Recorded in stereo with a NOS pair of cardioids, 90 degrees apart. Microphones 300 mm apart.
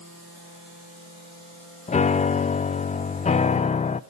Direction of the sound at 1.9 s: 25° left.